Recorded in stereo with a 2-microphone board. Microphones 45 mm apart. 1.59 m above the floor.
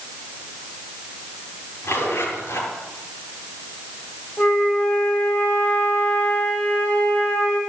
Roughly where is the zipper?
Left.